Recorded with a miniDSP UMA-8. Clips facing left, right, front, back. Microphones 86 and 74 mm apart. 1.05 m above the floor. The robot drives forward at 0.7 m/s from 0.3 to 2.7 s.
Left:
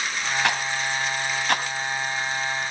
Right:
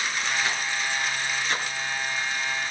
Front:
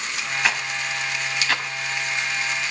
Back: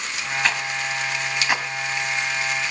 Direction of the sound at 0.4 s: 85° left.